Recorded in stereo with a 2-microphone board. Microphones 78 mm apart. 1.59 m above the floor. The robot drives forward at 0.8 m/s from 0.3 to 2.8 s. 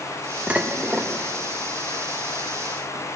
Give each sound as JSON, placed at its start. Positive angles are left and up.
{"t": 0.5, "sound": "dishes clattering", "side_deg": -15, "distance_m": 1.2}